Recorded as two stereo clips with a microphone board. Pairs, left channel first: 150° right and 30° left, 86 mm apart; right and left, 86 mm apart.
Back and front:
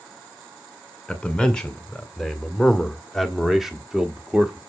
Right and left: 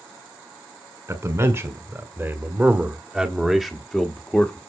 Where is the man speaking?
130° left, 2 m; by 4.6 s 35° right, 1.5 m.